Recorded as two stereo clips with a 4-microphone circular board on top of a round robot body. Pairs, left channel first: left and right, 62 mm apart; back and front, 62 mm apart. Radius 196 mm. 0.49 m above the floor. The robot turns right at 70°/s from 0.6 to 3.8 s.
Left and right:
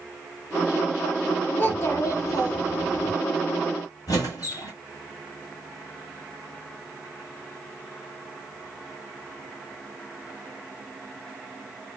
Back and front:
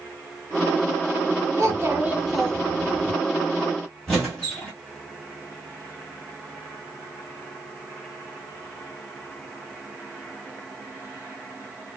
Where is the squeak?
95° left, 0.6 m.